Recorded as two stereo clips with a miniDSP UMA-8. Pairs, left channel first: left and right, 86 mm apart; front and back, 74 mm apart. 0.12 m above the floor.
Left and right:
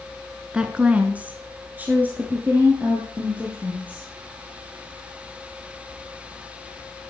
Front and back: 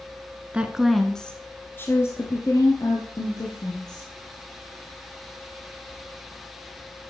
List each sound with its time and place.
0.5 s a woman speaking: 145° right, 1.3 m; by 4.1 s 20° right, 3.5 m